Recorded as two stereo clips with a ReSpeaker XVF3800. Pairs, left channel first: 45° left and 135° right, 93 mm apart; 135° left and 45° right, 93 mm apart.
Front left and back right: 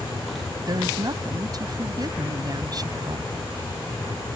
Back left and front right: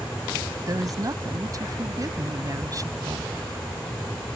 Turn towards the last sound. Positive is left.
turn(degrees=-95)